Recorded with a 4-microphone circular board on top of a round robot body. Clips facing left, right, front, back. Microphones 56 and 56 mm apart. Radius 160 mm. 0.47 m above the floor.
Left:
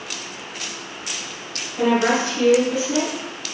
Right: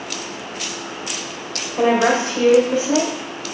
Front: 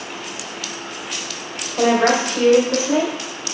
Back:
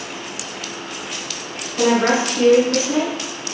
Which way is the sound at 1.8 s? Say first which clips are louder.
Right 2 dB, front 1 dB; 50° right.